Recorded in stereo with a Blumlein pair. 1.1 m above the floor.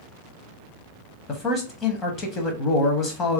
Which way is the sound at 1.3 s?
25° left.